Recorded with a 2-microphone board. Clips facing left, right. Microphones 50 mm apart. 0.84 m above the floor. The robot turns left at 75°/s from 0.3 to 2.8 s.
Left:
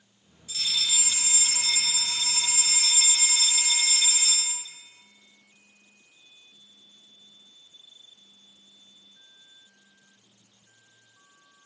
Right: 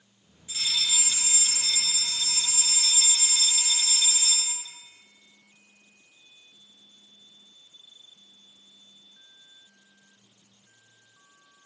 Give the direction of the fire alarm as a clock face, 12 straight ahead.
5 o'clock.